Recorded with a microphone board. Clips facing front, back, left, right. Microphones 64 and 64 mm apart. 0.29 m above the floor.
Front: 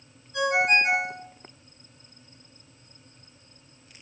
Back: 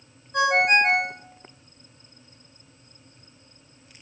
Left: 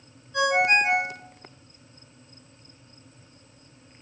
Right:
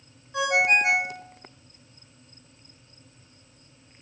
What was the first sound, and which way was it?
A ringtone, 160° right.